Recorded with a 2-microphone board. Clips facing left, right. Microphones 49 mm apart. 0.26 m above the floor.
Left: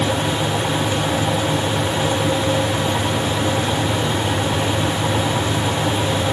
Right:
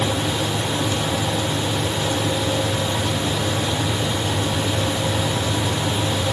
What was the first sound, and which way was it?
Only background noise.